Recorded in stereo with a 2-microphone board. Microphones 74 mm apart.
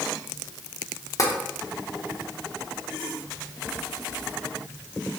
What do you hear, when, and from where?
1.2 s tapping: 45° left (ahead or behind), 0.7 m